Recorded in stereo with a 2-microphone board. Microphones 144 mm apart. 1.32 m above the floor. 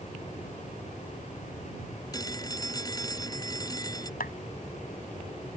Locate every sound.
2.1 s a phone ringing: 25° left (ahead or behind)
4.2 s a clap: 80° left